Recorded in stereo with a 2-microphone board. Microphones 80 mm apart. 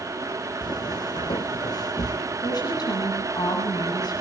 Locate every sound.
0.6 s footsteps: 60° left (ahead or behind), 1.7 m; by 2.2 s 55° left (ahead or behind), 2.5 m
2.4 s a woman speaking: 60° left (ahead or behind), 8.5 m